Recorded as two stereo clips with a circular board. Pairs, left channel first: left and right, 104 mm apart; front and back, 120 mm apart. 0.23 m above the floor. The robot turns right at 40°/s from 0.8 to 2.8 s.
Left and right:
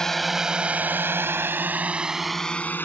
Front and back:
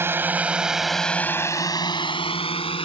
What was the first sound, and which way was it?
A drone, 165° left.